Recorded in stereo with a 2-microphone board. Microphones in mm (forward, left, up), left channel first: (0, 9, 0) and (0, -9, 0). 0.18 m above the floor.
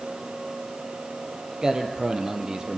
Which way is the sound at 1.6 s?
40° right (ahead or behind).